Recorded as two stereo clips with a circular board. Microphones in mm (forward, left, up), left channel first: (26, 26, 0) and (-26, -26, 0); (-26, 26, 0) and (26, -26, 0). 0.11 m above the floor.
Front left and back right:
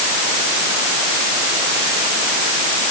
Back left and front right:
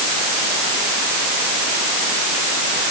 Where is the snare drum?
I don't hear a snare drum.